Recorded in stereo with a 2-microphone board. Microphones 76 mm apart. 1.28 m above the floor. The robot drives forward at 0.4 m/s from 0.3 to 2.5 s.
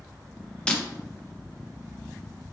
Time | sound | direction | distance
0.7 | breaking glass | 15° left (ahead or behind) | 0.6 m